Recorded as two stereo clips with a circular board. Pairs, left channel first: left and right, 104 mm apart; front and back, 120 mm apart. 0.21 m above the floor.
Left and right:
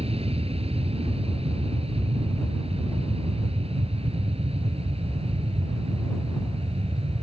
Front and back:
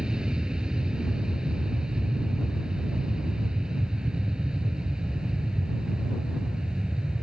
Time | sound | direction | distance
0.0 | an aircraft | 95° right | ?